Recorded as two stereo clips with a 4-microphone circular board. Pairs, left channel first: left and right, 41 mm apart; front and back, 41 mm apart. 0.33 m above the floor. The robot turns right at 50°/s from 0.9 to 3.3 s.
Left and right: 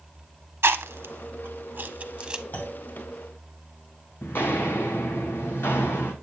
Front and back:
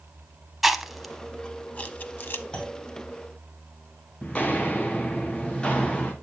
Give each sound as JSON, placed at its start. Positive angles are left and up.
{"t": 0.6, "sound": "chewing", "azimuth_deg": -95, "distance_m": 0.6}
{"t": 2.5, "sound": "a clunk", "azimuth_deg": 60, "distance_m": 2.5}
{"t": 4.2, "sound": "footsteps", "azimuth_deg": 60, "distance_m": 1.1}